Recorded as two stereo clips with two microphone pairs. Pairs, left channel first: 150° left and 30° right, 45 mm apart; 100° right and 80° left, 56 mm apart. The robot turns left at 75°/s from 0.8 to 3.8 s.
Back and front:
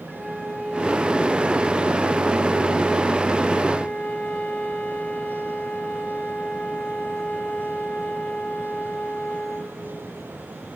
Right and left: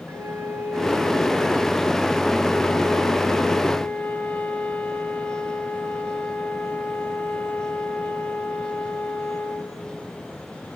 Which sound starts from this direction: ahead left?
A flute, at 0.1 s.